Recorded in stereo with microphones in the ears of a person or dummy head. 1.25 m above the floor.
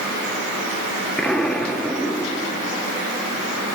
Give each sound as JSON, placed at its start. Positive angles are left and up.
{"t": 1.2, "sound": "an explosion", "side_deg": 0, "distance_m": 2.5}